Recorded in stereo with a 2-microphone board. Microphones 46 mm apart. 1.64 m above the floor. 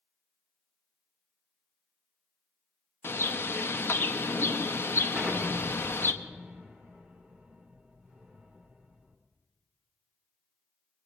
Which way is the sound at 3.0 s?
60° left (ahead or behind).